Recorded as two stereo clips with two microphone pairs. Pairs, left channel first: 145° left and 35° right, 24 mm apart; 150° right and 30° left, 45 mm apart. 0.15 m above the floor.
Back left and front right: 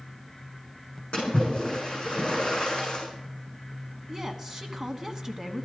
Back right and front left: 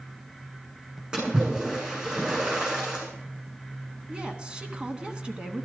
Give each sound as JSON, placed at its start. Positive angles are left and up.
{"t": 1.1, "sound": "a splash", "azimuth_deg": 100, "distance_m": 6.5}
{"t": 4.1, "sound": "a woman speaking", "azimuth_deg": 0, "distance_m": 1.4}